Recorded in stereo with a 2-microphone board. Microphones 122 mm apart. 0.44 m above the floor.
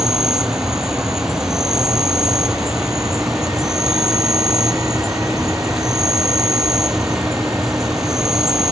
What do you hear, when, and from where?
0.0 s an insect: 5° right (ahead or behind)